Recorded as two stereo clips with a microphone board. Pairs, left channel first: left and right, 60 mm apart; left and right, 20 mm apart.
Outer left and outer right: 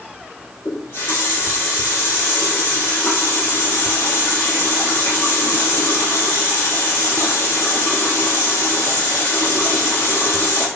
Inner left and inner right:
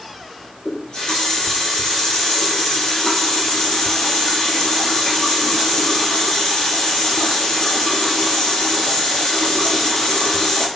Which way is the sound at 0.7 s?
65° left (ahead or behind).